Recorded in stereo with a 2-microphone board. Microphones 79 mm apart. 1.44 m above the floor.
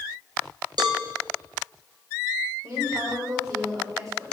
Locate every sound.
0.8 s a cowbell: 60° right (ahead or behind), 1.1 m
2.6 s a woman speaking: 50° right (ahead or behind), 4 m